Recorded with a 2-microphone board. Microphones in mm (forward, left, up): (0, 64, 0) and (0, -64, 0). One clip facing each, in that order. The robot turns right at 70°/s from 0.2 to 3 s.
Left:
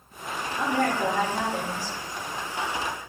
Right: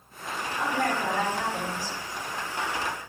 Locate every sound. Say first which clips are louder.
0.6 s a woman speaking: left 3 dB; 75° left, 1.2 m; by 2.0 s 170° left, 1.2 m